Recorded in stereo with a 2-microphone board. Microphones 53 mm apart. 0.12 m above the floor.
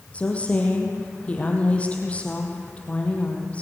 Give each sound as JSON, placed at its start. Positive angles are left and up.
{"t": 0.1, "sound": "a woman speaking", "side_deg": 25, "distance_m": 4.0}